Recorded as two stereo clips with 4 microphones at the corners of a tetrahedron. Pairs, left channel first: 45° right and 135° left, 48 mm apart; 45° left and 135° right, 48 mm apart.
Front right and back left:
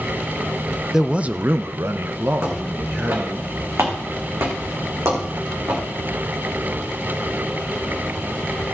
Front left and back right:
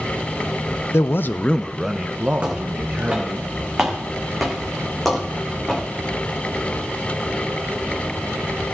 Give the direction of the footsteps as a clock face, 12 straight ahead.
7 o'clock.